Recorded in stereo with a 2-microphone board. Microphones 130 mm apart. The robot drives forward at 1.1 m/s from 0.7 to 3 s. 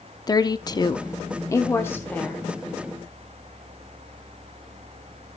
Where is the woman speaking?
30° left (ahead or behind), 0.7 m; by 2.4 s 10° left (ahead or behind), 1.8 m.